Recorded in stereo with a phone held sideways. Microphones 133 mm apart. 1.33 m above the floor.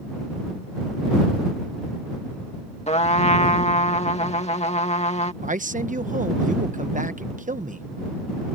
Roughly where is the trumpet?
Left.